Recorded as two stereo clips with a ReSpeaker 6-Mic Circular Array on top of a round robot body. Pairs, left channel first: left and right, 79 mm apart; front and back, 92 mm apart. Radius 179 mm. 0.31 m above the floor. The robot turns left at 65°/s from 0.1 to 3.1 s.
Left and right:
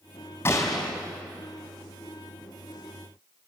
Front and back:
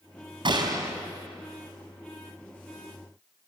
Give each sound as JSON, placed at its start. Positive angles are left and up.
{"t": 0.5, "sound": "a gunshot", "azimuth_deg": 150, "distance_m": 3.5}